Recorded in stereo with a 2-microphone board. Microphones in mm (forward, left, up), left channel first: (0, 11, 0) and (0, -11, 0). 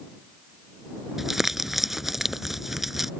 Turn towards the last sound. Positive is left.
turn(degrees=-15)  # may be behind; listen again after turning